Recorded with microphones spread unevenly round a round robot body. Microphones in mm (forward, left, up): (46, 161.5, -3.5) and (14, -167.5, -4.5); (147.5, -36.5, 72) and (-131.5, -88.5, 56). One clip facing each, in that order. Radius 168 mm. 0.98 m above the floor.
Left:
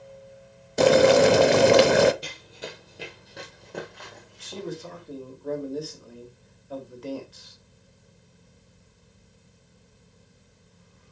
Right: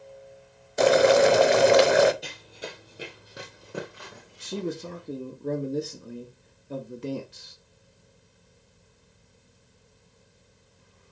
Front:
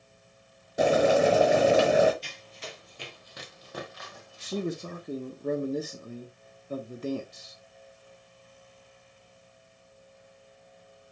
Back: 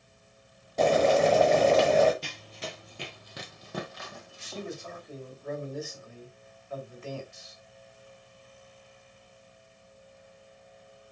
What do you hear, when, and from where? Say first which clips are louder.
0.8 s boiling: left 2 dB, front 1 dB; 80° left, 0.8 m
2.2 s running footsteps: even, back 3 dB; 170° left, 1.3 m; by 5.0 s 170° right, 3 m
4.4 s a man speaking: right 4 dB, front 7 dB; 35° right, 1.3 m